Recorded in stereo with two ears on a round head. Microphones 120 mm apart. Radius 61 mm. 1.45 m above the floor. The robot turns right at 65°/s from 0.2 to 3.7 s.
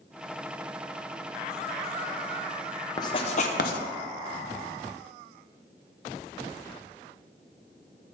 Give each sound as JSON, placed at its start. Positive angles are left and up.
{"t": 3.0, "sound": "writing", "side_deg": 25, "distance_m": 0.6}